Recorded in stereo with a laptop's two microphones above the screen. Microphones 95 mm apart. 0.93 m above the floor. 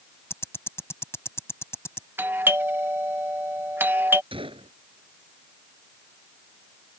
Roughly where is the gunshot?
Right.